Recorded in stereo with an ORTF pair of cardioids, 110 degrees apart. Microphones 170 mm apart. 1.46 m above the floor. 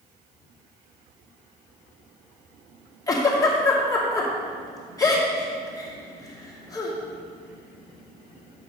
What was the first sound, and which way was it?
A giggle, 20° left.